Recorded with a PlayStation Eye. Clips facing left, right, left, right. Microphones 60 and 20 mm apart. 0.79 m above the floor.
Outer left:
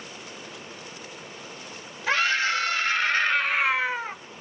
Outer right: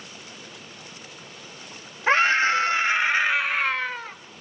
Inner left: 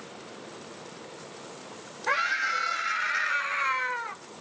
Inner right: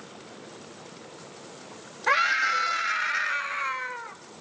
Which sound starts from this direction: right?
A scream, at 2.1 s.